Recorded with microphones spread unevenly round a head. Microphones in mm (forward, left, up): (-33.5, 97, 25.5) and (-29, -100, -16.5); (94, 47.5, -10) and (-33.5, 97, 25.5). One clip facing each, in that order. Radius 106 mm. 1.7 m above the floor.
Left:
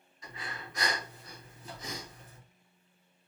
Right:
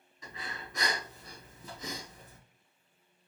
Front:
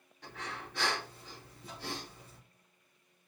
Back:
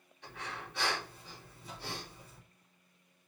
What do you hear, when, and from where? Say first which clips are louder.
0.2 s breathing: even, front 1 dB; 90° right, 3.5 m